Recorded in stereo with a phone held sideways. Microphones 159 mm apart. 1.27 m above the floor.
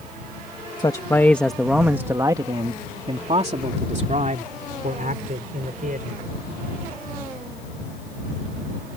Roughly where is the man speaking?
Left.